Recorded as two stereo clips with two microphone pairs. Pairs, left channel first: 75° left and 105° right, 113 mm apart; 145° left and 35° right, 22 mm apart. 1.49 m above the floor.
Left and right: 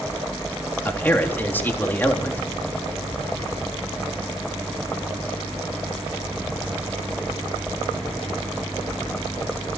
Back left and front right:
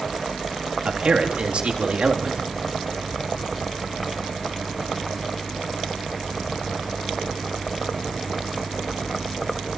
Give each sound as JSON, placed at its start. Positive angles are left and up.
{"t": 0.8, "sound": "a man speaking", "azimuth_deg": 5, "distance_m": 3.5}